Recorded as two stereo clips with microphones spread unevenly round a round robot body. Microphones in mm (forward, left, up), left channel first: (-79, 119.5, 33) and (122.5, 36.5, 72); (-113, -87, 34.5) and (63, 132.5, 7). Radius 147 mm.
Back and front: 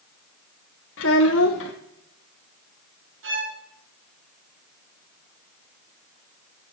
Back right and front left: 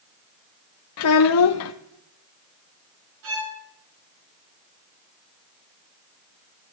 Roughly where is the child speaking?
Behind right.